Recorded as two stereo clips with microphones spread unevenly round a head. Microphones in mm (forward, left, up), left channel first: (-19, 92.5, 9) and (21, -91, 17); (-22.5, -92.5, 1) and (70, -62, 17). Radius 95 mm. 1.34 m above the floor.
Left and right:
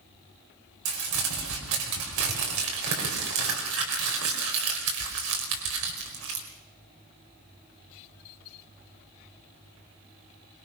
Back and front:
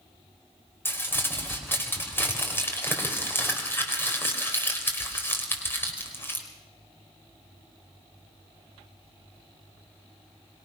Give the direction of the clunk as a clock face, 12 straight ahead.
I don't hear a clunk.